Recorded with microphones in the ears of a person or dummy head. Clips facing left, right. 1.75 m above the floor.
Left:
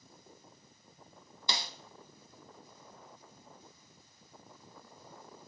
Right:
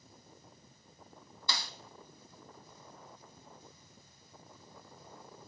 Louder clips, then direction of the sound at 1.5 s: Left 2 dB; 25° left (ahead or behind).